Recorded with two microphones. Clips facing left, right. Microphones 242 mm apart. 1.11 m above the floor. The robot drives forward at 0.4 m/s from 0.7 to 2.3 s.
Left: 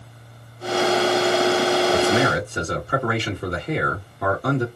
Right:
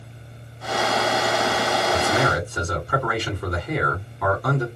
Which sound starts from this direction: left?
A man speaking, at 1.9 s.